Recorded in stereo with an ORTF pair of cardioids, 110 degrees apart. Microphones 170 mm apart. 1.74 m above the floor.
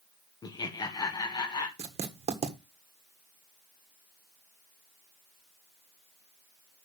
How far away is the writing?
About 1.6 m.